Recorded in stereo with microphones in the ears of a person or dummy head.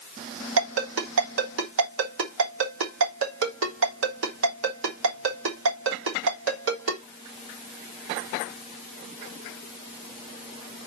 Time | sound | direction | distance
0.6 | a ringtone | 80° right | 3.5 m